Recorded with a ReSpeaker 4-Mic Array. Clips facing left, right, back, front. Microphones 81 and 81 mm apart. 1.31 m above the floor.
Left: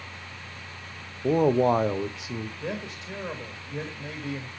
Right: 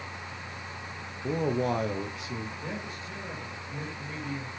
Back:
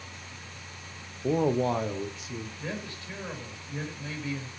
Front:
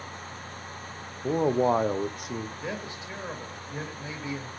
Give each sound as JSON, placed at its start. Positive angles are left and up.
{"t": 1.2, "sound": "a man speaking", "azimuth_deg": 95, "distance_m": 0.6}
{"t": 2.6, "sound": "a man speaking", "azimuth_deg": 70, "distance_m": 1.8}